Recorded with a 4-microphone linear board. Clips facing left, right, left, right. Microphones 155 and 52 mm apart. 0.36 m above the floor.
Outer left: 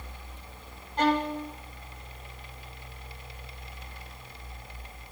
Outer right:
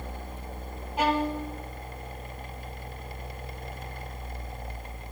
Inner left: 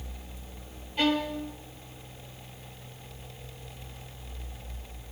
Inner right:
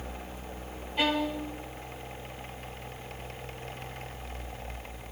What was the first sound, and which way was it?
A violin, 10° right (ahead or behind).